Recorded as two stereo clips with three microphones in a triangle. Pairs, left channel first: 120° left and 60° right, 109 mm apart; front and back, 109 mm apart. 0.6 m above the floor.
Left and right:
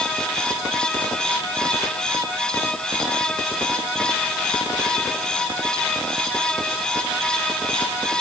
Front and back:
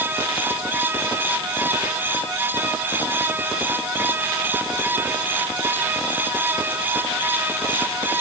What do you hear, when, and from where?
Only background noise.